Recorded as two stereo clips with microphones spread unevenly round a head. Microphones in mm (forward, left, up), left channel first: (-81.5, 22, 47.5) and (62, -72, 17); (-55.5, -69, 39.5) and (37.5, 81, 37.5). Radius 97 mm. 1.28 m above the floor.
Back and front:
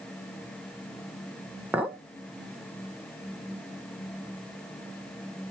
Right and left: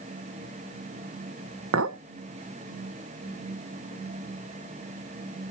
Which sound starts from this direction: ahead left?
A clink, at 1.7 s.